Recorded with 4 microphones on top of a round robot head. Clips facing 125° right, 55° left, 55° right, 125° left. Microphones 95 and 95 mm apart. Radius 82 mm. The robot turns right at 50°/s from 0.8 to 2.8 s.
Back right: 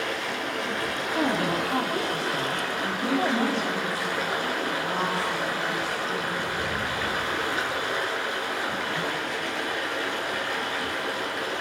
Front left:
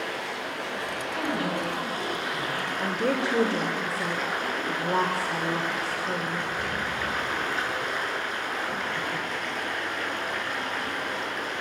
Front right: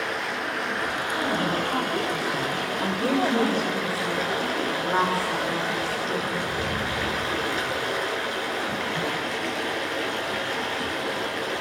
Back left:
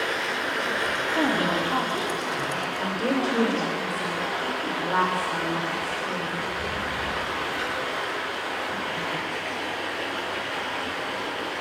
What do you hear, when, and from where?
0.0 s running water: 145° right, 7 m; by 11.6 s 45° right, 7 m
1.1 s a woman speaking: straight behind, 5.5 m; by 3.8 s 95° right, 5.5 m
2.8 s a woman speaking: 30° left, 3 m